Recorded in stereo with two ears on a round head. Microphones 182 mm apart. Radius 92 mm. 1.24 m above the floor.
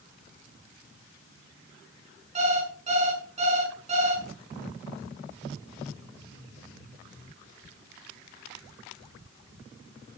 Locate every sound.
2.4 s an alarm clock: 35° right (ahead or behind), 6 m